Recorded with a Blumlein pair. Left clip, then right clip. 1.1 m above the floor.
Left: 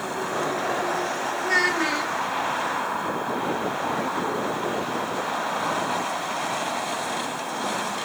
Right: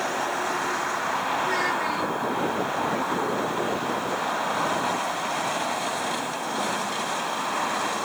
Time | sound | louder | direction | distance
1.4 | a child speaking | left 3 dB | 30° left | 0.8 m